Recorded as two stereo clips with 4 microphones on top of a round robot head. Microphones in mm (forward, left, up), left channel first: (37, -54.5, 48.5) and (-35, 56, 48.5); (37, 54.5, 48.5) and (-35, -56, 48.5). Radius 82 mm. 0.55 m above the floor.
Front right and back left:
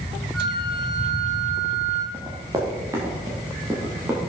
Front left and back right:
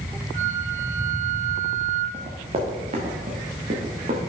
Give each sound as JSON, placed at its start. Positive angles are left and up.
{"t": 0.3, "sound": "a flute", "azimuth_deg": -150, "distance_m": 1.8}
{"t": 2.1, "sound": "running footsteps", "azimuth_deg": -170, "distance_m": 4.0}